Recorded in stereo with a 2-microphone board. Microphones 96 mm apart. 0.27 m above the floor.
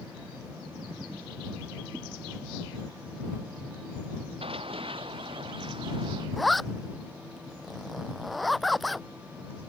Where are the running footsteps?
75° right (ahead or behind); by 6.3 s 60° right (ahead or behind).